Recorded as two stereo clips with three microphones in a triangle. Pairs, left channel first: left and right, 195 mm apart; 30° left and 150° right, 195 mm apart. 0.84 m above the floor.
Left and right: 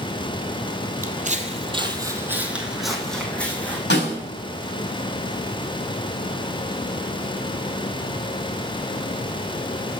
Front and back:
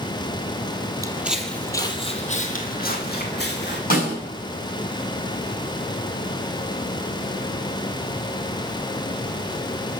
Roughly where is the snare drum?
Left.